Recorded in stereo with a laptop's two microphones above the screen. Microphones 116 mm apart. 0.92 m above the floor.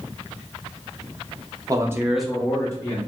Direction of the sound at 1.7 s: 30° right (ahead or behind).